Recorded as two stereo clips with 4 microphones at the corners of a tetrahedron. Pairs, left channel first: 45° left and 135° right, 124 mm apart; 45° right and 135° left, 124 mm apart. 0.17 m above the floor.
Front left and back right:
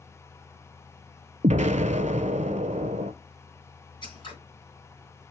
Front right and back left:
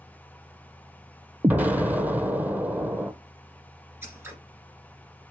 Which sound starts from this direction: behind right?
An explosion, at 1.4 s.